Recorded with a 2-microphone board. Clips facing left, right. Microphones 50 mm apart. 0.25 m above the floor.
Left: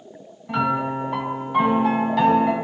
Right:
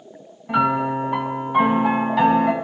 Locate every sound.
0.5 s a piano: 10° right (ahead or behind), 2.5 m